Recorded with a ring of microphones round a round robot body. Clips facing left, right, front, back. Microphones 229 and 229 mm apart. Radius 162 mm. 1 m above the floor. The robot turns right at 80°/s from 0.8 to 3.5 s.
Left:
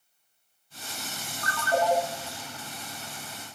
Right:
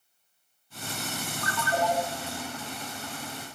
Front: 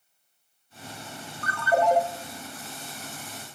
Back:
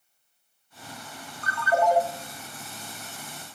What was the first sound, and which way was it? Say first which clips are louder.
A ringtone: left 3 dB, front 1 dB; 30° left.